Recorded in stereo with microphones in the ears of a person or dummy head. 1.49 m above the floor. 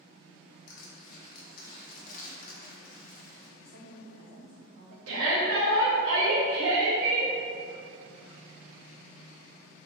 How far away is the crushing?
About 1.1 m.